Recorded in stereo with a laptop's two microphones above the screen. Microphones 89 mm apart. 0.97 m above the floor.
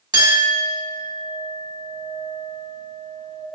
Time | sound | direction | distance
0.1 | a clink | 50° right (ahead or behind) | 1.3 m